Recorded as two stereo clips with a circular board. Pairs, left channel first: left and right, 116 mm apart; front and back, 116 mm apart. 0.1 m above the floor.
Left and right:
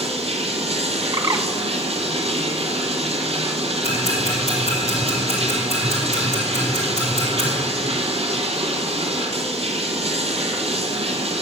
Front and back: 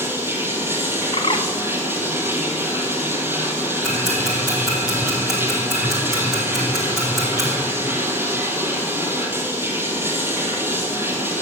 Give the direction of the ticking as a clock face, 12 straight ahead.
9 o'clock.